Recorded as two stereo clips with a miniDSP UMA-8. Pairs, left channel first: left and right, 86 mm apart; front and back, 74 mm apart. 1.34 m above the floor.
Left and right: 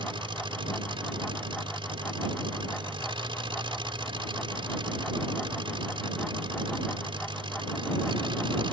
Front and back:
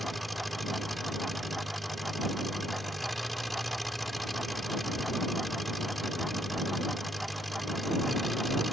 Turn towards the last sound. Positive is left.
turn(degrees=-90)